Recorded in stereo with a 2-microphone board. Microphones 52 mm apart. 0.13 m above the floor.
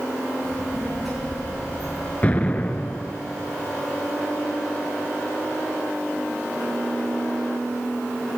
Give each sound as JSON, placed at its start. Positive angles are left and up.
{"t": 0.4, "sound": "a child speaking", "side_deg": -5, "distance_m": 7.5}
{"t": 2.2, "sound": "an explosion", "side_deg": 30, "distance_m": 0.7}